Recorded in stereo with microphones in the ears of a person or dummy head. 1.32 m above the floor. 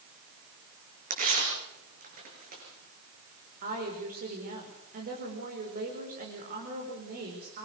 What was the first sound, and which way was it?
Tearing paper, 40° right (ahead or behind).